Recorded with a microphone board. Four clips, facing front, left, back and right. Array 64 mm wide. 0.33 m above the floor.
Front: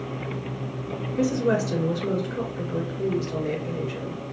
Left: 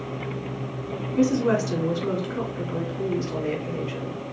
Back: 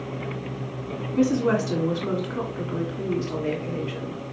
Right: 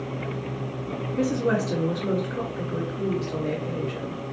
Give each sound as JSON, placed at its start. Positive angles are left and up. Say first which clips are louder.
{"t": 1.2, "sound": "a woman speaking", "louder": "left 3 dB, back 2 dB", "azimuth_deg": 155, "distance_m": 2.5}